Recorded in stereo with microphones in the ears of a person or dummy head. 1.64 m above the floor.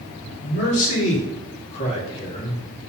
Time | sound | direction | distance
0.4 | a man speaking | 40° left (ahead or behind) | 5 m